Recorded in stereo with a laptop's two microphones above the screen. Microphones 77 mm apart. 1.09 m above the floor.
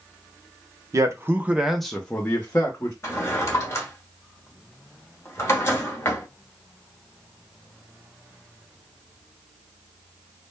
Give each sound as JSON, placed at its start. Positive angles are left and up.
{"t": 0.9, "sound": "a man speaking", "side_deg": -40, "distance_m": 0.6}
{"t": 3.0, "sound": "a drawer", "side_deg": 35, "distance_m": 1.0}